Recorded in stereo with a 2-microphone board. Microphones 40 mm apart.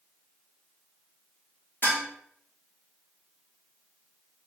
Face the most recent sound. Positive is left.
turn(degrees=65)  # may be behind; listen again after turning